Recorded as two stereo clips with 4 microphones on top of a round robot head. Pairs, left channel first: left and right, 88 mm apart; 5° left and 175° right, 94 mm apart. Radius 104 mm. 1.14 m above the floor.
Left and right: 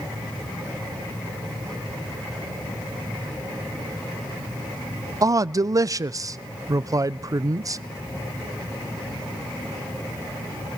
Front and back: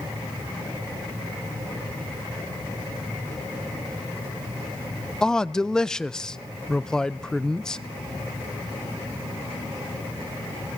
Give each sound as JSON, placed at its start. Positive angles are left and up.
{"t": 5.2, "sound": "a man speaking", "azimuth_deg": -75, "distance_m": 0.7}